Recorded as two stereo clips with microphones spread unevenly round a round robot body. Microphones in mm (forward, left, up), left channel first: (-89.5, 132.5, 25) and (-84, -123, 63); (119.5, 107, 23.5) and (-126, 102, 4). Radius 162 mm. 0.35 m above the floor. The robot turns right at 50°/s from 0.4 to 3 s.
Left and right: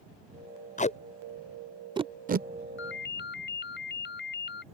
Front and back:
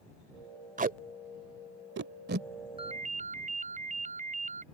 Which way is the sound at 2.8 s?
115° left.